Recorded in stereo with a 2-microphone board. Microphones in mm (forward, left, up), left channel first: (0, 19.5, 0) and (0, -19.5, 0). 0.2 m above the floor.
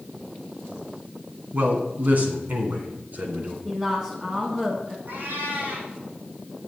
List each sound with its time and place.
1.5 s a man speaking: 40° right (ahead or behind), 2 m; by 3.5 s 50° right (ahead or behind), 2.5 m
3.6 s a woman speaking: 20° right (ahead or behind), 1.8 m
5.1 s a cat meowing: 60° right (ahead or behind), 5 m